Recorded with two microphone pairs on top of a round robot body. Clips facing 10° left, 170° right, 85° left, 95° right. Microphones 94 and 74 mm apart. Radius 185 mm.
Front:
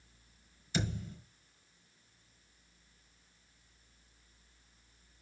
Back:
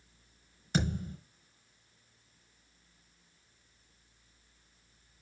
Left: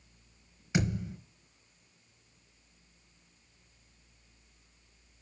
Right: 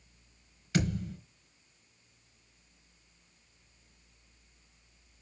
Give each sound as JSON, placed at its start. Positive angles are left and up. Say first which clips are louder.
{"t": 0.7, "sound": "a thud", "louder": "back 4 dB, even", "azimuth_deg": 155, "distance_m": 4.0}